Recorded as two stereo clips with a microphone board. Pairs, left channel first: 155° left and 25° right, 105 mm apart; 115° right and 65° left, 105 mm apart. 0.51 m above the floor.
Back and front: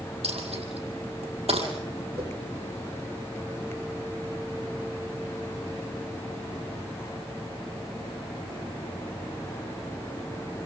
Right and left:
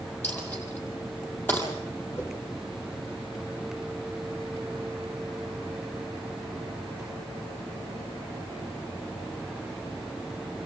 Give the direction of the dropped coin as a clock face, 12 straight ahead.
1 o'clock.